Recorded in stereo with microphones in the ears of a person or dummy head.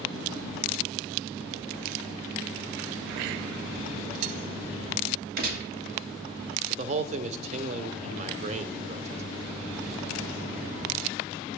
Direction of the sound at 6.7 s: 35° right (ahead or behind).